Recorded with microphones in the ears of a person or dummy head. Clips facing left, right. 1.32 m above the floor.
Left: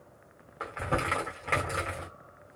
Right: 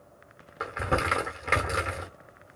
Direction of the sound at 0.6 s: 25° right (ahead or behind).